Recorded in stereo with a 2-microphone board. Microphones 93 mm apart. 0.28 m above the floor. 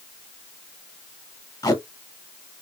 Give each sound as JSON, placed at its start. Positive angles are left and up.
{"t": 1.6, "sound": "tape being pulled", "side_deg": 35, "distance_m": 1.1}